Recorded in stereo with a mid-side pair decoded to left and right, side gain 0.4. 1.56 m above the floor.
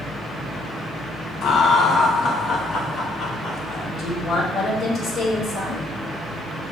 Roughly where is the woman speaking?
Left.